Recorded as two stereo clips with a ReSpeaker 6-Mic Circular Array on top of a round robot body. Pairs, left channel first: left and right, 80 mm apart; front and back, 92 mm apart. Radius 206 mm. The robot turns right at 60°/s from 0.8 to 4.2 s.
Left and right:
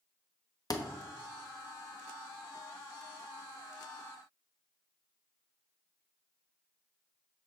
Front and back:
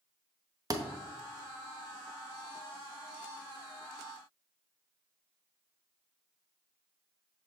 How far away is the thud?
About 1.1 m.